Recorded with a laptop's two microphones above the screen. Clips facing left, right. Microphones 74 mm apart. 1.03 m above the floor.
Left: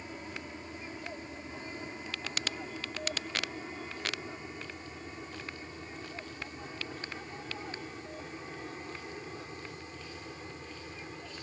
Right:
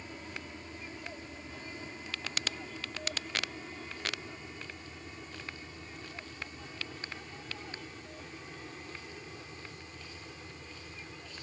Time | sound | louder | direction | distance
0.0 | an aircraft | left 2 dB | 10° left (ahead or behind) | ?